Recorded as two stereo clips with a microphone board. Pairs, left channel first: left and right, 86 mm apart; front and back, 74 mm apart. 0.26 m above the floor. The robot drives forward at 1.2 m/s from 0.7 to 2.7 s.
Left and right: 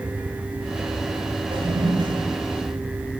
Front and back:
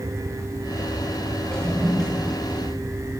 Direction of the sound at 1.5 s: 80° right.